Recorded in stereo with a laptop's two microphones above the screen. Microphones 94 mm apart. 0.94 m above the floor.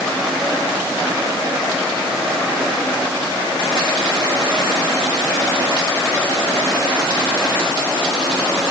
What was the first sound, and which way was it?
Only background noise.